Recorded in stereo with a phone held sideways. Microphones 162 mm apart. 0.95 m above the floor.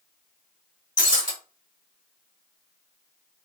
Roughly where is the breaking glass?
Left.